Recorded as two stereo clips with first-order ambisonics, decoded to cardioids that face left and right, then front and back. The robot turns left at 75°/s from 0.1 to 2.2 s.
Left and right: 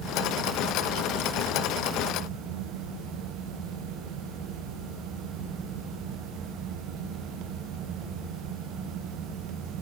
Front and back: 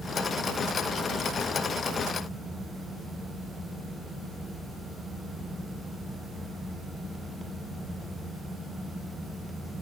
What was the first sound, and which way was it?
Only background noise.